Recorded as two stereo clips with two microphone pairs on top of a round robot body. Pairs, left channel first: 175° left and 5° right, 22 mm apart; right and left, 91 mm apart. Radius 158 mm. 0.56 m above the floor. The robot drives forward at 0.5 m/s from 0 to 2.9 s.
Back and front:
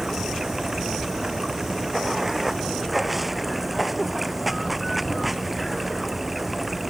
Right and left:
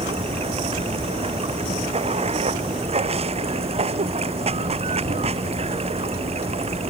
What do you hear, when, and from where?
0.0 s running water: 70° left; by 6.9 s 80° left